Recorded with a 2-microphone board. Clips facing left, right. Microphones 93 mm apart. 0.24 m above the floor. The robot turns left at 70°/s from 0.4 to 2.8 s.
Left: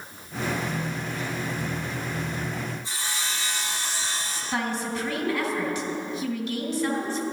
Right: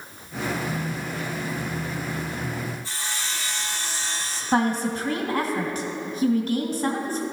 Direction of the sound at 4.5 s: 40° right (ahead or behind).